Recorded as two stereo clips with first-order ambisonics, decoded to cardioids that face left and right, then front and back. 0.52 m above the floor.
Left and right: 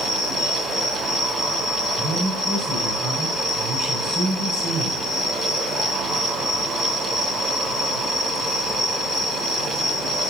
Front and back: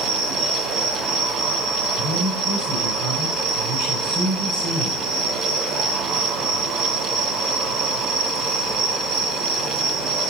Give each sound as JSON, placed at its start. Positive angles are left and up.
{"t": 0.0, "sound": "an insect", "azimuth_deg": 180, "distance_m": 4.0}
{"t": 2.0, "sound": "a man speaking", "azimuth_deg": -165, "distance_m": 6.5}